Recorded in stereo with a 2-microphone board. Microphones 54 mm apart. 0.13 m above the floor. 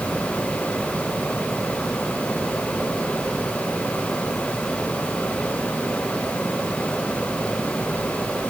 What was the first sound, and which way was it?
Only background noise.